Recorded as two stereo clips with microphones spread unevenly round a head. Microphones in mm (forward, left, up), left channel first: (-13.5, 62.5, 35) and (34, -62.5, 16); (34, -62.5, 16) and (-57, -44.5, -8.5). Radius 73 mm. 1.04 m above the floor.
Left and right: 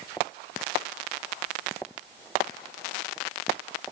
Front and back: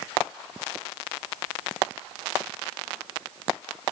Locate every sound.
Only background noise.